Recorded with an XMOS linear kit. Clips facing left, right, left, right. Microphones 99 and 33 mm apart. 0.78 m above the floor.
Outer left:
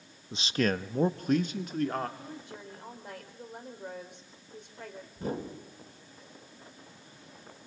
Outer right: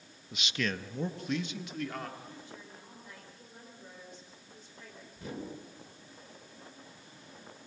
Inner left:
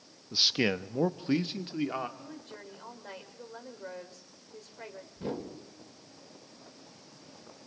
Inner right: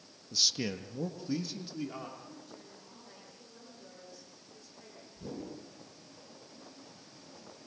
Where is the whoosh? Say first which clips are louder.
Outer left 6 dB, inner left 5 dB; 45° left (ahead or behind), 3 m.